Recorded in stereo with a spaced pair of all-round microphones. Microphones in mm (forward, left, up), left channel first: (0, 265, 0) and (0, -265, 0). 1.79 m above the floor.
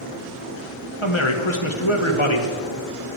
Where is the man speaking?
60° left (ahead or behind), 1.6 m.